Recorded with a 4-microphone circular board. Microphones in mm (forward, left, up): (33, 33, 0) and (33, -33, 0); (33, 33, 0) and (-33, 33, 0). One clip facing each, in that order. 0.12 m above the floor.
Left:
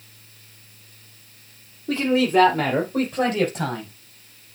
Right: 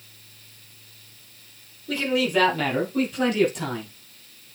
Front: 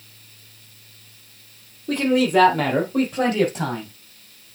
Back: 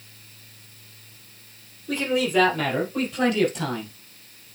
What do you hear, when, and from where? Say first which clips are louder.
1.9 s a man speaking: left 4 dB, front 5 dB; 30° left, 4 m; by 3.9 s 50° left, 4.5 m